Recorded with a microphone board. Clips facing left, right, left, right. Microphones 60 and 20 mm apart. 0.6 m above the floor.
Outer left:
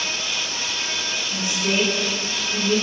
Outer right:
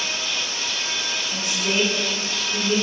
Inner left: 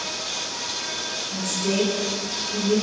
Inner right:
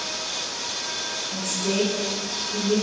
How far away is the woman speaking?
About 1.7 m.